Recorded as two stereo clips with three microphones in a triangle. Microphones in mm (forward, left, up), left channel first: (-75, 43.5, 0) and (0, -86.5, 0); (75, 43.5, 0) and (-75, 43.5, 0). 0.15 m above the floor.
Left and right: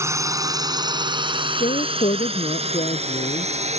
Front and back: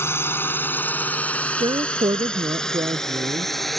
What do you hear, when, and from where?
0.0 s a drone: 40° right; by 3.8 s 90° right
1.5 s a woman speaking: 130° left